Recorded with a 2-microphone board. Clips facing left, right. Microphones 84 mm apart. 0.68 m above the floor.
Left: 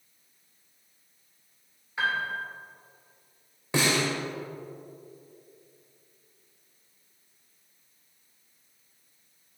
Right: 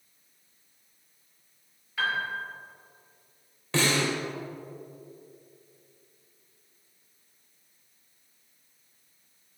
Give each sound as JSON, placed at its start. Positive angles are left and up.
{"t": 2.0, "sound": "a piano", "side_deg": 25, "distance_m": 2.5}
{"t": 3.7, "sound": "a snare drum", "side_deg": 15, "distance_m": 2.5}